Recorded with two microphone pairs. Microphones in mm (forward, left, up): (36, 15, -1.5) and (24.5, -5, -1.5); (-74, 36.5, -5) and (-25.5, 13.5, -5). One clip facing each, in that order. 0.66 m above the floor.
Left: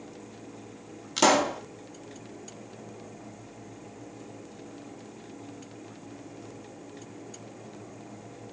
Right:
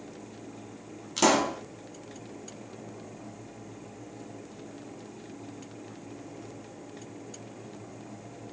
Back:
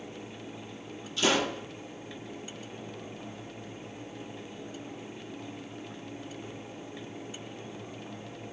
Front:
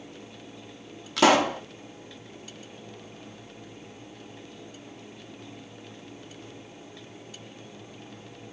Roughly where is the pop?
Ahead.